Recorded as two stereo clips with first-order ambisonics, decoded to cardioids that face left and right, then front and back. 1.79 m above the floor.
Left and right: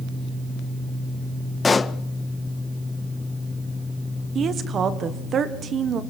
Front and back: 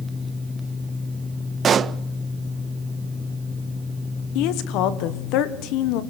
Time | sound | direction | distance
1.6 | a pop | 150° left | 0.5 m
4.3 | a woman speaking | 30° right | 1.6 m